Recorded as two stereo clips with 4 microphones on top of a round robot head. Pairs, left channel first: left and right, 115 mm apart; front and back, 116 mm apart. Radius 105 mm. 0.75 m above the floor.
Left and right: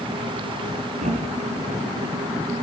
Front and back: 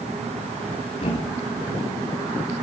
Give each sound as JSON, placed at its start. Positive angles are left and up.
{"t": 1.0, "sound": "a thud", "azimuth_deg": -50, "distance_m": 3.0}